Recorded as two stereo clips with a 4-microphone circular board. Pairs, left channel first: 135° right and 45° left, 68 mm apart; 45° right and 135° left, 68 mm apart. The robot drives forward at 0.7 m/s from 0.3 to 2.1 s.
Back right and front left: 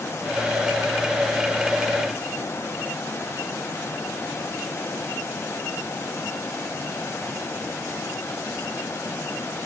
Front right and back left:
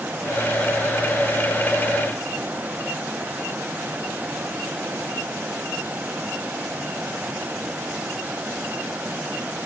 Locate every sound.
Only background noise.